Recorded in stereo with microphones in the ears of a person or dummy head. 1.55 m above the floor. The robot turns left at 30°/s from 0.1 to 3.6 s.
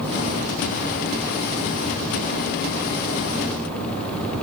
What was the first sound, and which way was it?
Only background noise.